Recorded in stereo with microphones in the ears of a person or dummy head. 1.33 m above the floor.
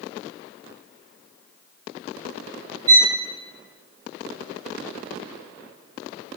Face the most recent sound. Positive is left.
turn(degrees=-20)  # may be behind; listen again after turning